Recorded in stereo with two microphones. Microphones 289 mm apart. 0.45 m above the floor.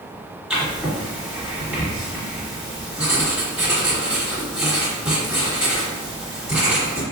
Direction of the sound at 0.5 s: 5° right (ahead or behind).